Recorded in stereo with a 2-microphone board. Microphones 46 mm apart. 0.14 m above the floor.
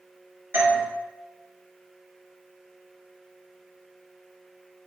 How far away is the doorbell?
About 3.5 m.